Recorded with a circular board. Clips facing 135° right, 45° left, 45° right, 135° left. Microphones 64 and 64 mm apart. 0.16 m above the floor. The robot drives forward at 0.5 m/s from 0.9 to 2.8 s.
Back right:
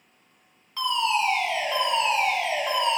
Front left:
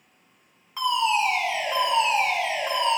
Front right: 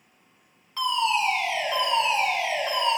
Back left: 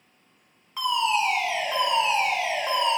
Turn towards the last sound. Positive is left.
turn(degrees=140)